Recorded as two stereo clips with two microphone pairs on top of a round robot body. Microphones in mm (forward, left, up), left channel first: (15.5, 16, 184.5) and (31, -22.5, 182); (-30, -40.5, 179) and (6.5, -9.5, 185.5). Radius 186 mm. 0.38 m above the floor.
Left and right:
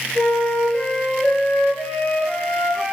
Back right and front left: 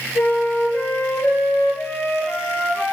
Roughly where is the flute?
Behind.